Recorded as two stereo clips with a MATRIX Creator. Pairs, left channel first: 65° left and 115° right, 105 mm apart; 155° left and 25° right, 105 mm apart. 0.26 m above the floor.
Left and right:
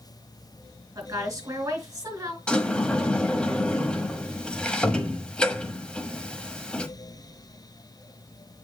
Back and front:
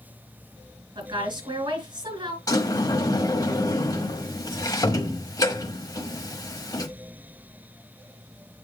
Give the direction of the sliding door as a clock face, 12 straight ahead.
7 o'clock.